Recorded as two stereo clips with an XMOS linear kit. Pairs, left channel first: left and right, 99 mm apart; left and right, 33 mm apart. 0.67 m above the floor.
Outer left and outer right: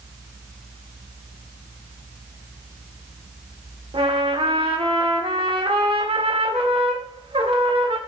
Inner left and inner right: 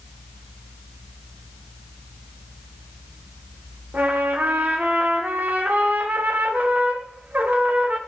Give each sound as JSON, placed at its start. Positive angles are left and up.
{"t": 3.9, "sound": "a trumpet", "side_deg": -65, "distance_m": 2.0}